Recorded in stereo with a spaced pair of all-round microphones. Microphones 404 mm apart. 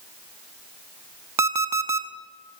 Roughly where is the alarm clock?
Right.